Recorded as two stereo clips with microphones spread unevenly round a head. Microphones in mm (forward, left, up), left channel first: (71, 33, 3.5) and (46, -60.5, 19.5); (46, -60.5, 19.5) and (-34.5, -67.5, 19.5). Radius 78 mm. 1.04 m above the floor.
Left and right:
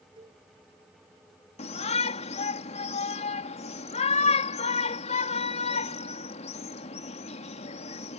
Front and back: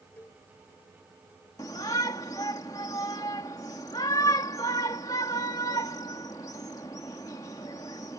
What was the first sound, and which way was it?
A cowbell, 65° right.